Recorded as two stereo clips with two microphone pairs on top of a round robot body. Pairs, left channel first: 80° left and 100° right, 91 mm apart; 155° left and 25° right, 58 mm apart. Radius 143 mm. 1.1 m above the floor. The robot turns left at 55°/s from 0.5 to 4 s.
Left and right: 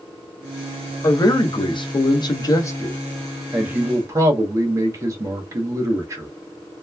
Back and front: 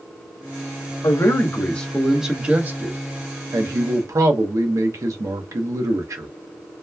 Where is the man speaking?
120° left, 0.8 m; by 6.3 s 40° right, 0.8 m.